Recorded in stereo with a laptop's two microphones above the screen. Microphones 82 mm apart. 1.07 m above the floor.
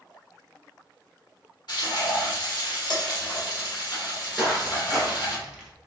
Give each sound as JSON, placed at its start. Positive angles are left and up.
{"t": 1.7, "sound": "frying", "side_deg": 60, "distance_m": 1.5}
{"t": 4.4, "sound": "footsteps", "side_deg": -5, "distance_m": 1.1}